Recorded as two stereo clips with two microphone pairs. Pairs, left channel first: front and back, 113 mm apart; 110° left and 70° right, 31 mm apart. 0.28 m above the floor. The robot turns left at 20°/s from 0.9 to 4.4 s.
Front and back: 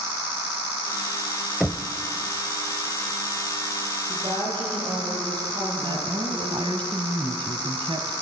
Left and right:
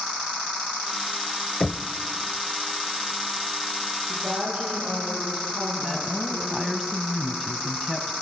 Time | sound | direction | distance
1.6 | knocking | 100° left | 0.6 m
4.1 | a woman speaking | 125° right | 9 m
5.8 | a woman speaking | 160° right | 1.5 m